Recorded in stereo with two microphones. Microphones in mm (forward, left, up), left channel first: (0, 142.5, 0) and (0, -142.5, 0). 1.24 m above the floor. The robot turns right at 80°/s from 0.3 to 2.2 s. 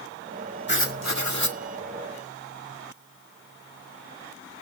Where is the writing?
35° left, 1.8 m; by 1.6 s 110° left, 1.8 m.